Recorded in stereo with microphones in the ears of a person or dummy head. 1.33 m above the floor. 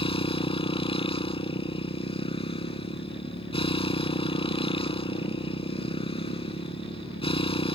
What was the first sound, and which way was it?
A motorcycle, 25° left (ahead or behind).